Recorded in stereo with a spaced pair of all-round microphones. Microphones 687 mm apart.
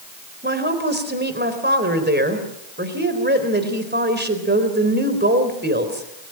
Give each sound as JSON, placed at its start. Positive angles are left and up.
{"t": 0.4, "sound": "a woman speaking", "side_deg": -15, "distance_m": 4.0}